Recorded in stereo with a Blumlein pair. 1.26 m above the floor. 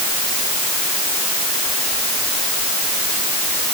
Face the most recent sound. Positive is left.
No sound to turn to.